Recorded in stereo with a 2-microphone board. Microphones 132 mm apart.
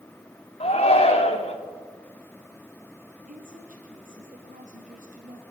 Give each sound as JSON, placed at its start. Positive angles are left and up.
{"t": 0.6, "sound": "a shout", "side_deg": 55, "distance_m": 3.0}
{"t": 3.3, "sound": "a woman speaking", "side_deg": -85, "distance_m": 3.5}